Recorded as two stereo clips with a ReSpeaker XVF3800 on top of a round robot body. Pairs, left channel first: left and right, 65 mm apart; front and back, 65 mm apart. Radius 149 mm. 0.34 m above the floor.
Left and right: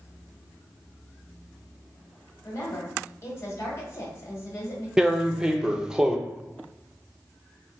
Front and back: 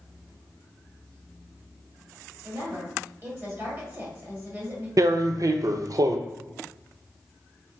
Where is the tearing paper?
165° right, 0.5 m.